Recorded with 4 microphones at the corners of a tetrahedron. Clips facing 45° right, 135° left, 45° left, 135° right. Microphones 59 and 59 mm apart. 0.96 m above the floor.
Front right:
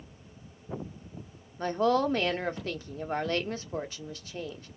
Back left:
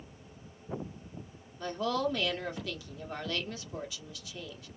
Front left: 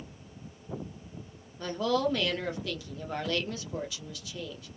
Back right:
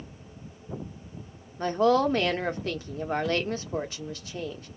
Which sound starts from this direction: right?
A woman speaking, at 1.6 s.